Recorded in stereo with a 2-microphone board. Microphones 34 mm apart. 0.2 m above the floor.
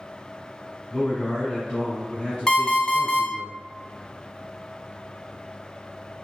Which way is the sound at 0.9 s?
30° left (ahead or behind).